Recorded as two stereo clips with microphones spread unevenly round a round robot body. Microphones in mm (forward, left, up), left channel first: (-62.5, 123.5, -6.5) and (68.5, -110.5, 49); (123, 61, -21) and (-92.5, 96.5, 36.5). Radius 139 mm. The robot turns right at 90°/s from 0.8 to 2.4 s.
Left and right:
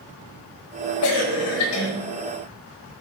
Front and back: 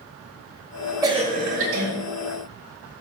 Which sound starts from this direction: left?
A cough, at 1.0 s.